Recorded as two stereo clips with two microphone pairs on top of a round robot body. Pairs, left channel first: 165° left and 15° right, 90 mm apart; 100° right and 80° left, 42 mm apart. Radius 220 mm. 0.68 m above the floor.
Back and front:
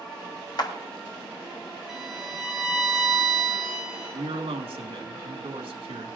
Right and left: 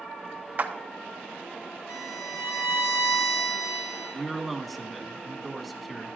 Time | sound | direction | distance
0.6 | a clap | 130° left | 1.3 m
1.9 | a violin | 95° right | 0.7 m
4.1 | a man speaking | 15° right | 1.7 m